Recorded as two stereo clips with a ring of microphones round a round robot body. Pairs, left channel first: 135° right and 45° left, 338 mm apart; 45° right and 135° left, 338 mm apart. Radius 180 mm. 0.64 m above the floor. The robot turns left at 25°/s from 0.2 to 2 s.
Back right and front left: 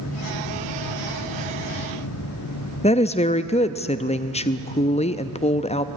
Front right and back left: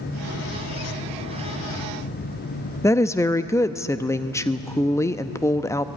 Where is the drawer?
I don't hear a drawer.